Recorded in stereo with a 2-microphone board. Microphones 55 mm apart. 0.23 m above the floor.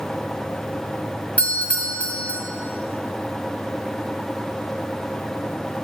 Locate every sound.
1.4 s a doorbell: 25° left (ahead or behind), 1.9 m